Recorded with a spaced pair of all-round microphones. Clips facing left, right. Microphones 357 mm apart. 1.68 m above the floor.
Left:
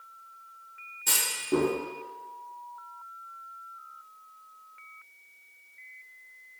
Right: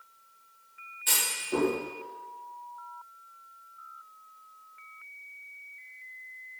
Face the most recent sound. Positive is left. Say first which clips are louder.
# left 4 dB
turn(degrees=60)  # may be behind; listen again after turning